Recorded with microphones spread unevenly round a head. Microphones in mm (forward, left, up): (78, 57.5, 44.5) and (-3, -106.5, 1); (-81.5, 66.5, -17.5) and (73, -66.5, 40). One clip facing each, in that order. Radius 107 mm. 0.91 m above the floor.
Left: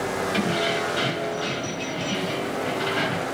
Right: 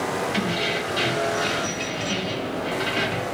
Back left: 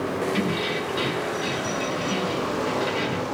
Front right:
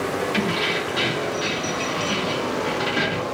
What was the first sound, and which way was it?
Keys jangling, 45° right.